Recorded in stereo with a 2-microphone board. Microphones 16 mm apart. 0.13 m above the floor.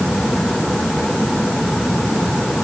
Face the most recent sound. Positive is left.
No sound to turn to.